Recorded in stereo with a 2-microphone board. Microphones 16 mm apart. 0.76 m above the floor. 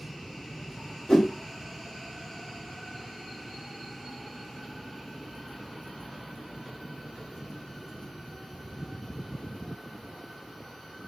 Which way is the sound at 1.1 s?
40° left (ahead or behind).